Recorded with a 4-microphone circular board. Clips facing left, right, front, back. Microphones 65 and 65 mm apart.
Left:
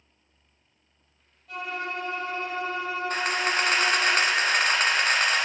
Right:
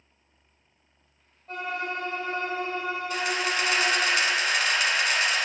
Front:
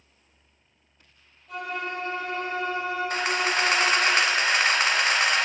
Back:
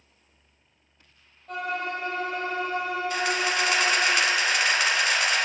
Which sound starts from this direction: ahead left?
A camera shutter, at 3.1 s.